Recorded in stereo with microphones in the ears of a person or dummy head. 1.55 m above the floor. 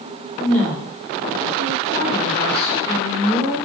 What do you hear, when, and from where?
0.4 s a woman speaking: 10° left (ahead or behind), 1.6 m